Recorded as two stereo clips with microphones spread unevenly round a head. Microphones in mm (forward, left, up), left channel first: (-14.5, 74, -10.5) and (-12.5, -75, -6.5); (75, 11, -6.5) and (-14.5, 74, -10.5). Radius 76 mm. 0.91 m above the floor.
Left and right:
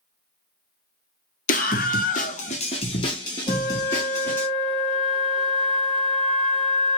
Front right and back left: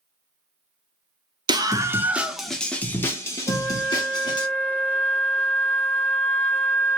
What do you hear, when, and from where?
1.5 s a scream: 105° left, 0.7 m; by 4.5 s 15° left, 1.6 m
3.5 s a flute: 40° left, 1.0 m